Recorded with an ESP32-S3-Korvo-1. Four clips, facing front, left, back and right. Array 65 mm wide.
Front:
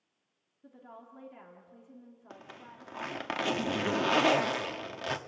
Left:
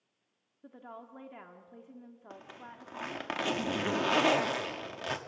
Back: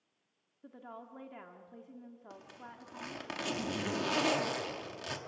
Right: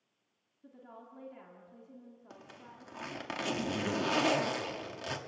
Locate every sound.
0.6 s a woman speaking: 125° left, 1.6 m
2.3 s a zipper: 35° left, 1.3 m